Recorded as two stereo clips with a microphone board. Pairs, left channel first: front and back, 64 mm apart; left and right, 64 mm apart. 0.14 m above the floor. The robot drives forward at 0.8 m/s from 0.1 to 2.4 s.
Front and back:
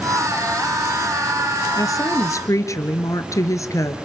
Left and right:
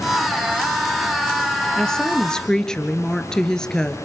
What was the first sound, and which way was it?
A woman speaking, 10° left.